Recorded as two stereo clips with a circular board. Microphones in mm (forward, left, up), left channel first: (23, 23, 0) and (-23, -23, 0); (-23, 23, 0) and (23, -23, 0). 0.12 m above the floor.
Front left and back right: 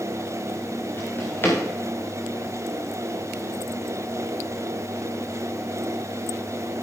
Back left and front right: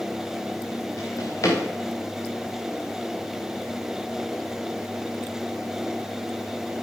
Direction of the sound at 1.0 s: 100° left.